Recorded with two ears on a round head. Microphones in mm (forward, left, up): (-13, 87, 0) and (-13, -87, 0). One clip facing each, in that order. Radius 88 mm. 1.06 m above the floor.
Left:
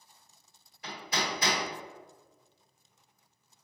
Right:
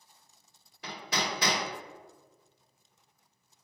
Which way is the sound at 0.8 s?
55° right (ahead or behind).